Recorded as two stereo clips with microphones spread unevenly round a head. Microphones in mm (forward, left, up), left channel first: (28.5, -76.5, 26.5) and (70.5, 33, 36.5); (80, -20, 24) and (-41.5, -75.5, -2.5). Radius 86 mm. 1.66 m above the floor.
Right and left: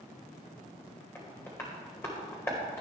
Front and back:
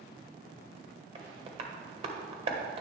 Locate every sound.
1.1 s tapping: 175° left, 1.5 m